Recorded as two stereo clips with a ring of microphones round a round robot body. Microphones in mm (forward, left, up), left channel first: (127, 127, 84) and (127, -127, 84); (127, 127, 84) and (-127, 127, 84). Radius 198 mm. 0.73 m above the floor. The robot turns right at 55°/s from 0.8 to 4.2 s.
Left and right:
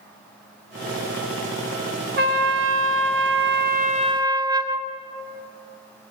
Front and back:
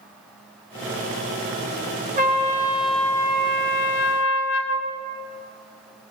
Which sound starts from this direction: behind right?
A trumpet, at 2.2 s.